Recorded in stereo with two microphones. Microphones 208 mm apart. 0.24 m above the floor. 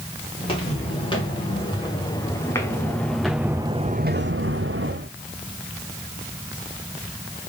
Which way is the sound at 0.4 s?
25° left (ahead or behind).